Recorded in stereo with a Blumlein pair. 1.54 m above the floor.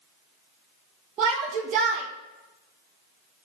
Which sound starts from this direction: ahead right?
A shout, at 1.2 s.